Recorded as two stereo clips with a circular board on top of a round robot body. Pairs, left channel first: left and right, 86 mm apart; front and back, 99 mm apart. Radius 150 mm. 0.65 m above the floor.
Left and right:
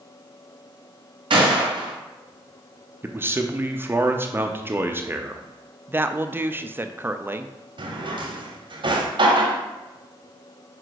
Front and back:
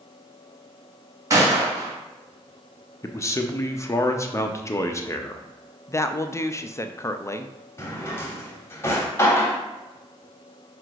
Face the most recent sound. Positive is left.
turn(degrees=-65)